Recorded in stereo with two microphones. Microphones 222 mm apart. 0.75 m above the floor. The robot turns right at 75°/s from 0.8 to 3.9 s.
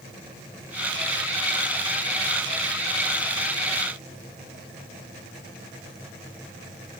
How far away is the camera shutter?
No camera shutter in this recording.